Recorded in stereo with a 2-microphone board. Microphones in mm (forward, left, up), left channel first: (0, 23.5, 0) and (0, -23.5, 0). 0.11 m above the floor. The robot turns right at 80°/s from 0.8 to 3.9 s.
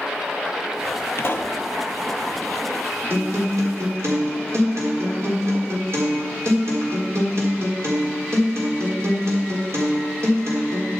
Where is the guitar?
130° right, 3.5 m; by 10.9 s 65° right, 3.5 m.